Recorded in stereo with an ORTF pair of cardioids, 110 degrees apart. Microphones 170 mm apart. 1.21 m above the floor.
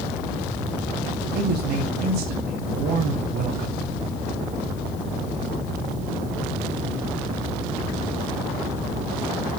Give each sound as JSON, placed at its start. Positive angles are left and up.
{"t": 1.3, "sound": "a man speaking", "azimuth_deg": -70, "distance_m": 3.0}